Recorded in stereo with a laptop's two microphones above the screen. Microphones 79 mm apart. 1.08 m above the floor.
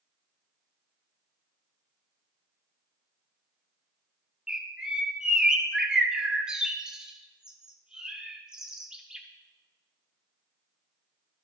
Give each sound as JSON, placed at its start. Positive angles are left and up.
{"t": 4.5, "sound": "a bird", "side_deg": -10, "distance_m": 0.7}